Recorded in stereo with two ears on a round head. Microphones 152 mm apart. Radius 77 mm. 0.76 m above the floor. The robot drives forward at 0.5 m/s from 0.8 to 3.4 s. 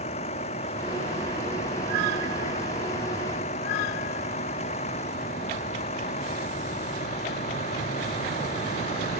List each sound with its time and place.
0.0 s a vehicle: 40° left (ahead or behind)